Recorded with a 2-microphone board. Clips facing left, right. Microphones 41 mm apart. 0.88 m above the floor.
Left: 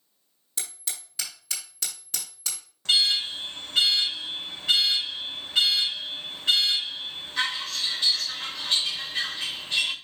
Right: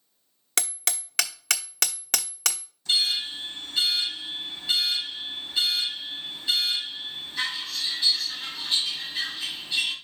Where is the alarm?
80° left, 3 m.